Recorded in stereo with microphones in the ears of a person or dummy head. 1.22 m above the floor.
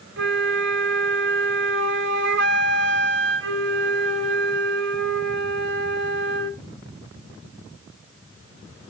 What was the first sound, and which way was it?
A flute, 60° right (ahead or behind).